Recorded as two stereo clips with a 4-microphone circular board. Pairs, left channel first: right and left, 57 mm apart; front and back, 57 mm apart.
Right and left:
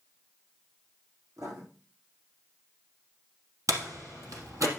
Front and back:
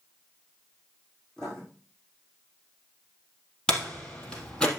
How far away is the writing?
About 6.5 m.